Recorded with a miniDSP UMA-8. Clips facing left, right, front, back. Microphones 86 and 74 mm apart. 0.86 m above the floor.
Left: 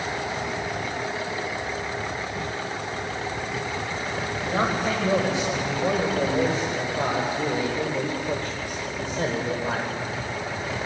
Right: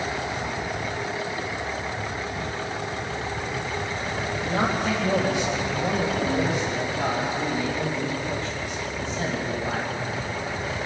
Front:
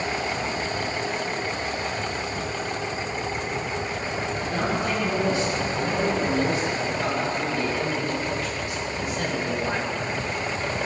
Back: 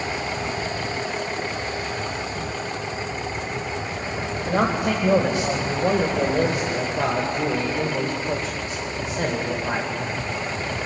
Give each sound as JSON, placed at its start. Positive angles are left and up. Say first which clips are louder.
{"t": 4.3, "sound": "a man speaking", "louder": "even, back 6 dB", "azimuth_deg": 165, "distance_m": 3.5}